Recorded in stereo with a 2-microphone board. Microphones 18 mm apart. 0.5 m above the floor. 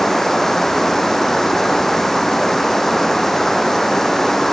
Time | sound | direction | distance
0.0 | running water | 25° left (ahead or behind) | ?